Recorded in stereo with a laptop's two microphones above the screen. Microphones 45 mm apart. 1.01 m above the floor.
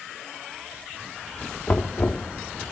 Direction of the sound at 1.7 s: 50° left (ahead or behind).